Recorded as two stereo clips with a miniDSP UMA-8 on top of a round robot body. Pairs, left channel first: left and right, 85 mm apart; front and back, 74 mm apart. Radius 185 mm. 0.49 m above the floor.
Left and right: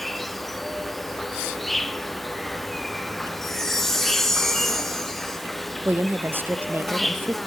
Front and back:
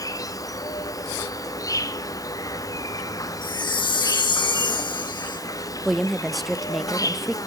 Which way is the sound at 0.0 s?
Straight ahead.